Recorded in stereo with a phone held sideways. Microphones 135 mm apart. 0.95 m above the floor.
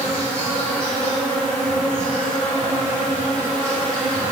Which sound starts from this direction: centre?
An insect, at 0.0 s.